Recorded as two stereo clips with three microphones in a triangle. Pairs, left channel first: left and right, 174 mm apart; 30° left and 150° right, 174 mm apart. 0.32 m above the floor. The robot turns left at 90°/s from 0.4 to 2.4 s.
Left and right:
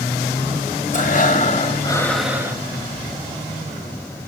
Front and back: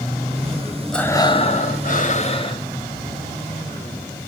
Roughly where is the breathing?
Behind left.